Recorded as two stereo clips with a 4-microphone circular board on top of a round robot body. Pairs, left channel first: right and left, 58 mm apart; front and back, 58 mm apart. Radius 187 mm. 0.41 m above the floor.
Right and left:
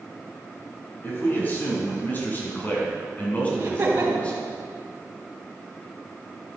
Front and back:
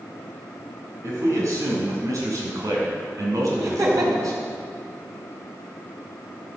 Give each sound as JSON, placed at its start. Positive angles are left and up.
{"t": 1.0, "sound": "a man speaking", "azimuth_deg": -145, "distance_m": 5.5}
{"t": 3.6, "sound": "laughter", "azimuth_deg": 150, "distance_m": 4.0}